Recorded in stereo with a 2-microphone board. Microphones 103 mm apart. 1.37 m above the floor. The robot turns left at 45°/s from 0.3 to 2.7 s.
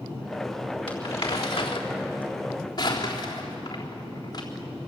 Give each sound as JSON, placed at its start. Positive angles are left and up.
{"t": 0.9, "sound": "crumpling", "side_deg": 60, "distance_m": 3.5}